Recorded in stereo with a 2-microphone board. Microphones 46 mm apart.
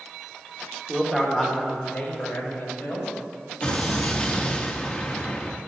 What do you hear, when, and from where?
0.9 s a man speaking: 10° right (ahead or behind), 1.7 m; by 3.1 s 40° left (ahead or behind), 3.5 m
3.6 s an explosion: 20° left (ahead or behind), 1.1 m